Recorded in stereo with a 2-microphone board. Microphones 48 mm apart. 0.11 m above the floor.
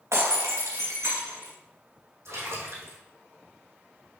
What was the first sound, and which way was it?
Breaking glass, 65° right (ahead or behind).